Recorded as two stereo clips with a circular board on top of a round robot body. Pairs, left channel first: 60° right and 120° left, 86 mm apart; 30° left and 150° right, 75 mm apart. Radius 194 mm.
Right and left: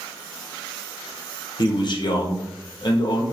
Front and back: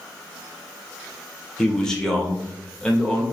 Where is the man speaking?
50° right, 0.9 m.